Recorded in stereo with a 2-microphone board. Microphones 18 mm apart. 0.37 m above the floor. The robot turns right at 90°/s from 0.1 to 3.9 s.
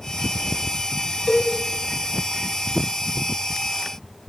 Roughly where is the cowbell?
Left.